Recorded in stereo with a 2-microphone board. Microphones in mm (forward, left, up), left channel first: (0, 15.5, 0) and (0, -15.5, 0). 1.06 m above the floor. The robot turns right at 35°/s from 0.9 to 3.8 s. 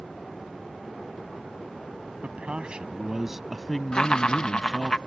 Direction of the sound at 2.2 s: 50° right.